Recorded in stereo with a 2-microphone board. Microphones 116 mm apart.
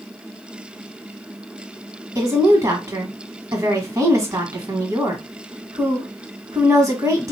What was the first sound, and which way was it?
A woman speaking, 30° right (ahead or behind).